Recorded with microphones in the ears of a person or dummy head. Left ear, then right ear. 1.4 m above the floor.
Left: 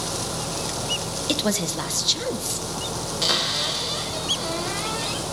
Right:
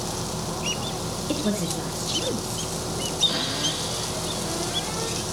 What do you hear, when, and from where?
0.0 s an engine running: centre (ahead or behind), 9 m
1.3 s a woman speaking: 45° left (ahead or behind), 2.0 m
3.2 s a cupboard door: 60° left (ahead or behind), 6 m